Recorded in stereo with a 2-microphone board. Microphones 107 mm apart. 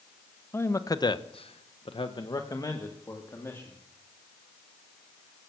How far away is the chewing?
I don't hear chewing.